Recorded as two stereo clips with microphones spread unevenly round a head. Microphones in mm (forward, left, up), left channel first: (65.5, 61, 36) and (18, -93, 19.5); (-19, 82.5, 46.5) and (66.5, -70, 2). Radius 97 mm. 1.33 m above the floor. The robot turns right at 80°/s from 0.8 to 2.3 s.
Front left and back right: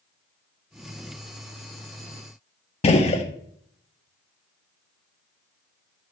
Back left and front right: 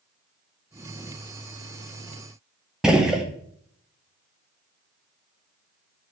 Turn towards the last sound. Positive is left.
turn(degrees=35)